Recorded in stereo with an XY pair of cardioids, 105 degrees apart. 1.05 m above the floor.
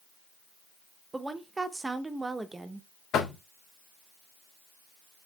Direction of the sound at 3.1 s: 70° left.